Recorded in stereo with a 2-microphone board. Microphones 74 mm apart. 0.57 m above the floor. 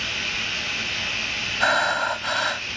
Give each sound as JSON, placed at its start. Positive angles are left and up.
{"t": 0.0, "sound": "running water", "side_deg": 0}
{"t": 1.6, "sound": "breathing", "side_deg": 0}